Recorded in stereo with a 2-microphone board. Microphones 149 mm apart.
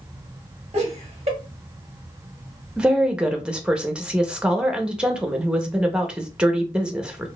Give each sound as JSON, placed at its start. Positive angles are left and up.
{"t": 0.7, "sound": "laughter", "side_deg": -40, "distance_m": 1.4}
{"t": 2.8, "sound": "a woman speaking", "side_deg": -5, "distance_m": 0.7}